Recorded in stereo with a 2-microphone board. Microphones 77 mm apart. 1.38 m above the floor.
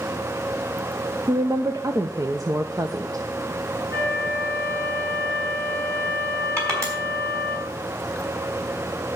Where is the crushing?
45° right (ahead or behind), 4 m.